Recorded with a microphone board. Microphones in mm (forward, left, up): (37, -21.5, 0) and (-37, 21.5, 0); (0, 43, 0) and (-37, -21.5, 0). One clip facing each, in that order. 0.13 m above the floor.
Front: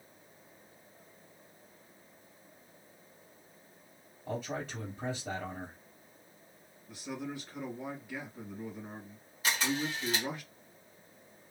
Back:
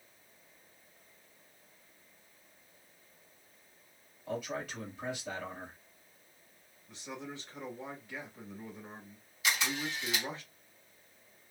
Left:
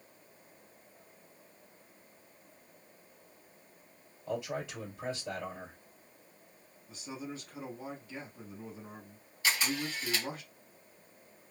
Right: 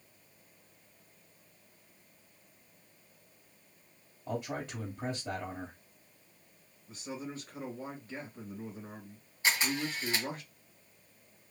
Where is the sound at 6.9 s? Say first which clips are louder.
Front 4 dB, right 1 dB; 110° right, 2 m.